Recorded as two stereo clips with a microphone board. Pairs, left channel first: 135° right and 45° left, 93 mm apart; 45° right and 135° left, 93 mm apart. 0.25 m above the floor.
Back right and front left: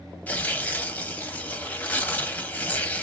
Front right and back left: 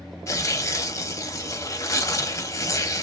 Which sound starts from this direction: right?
Tearing paper, at 0.3 s.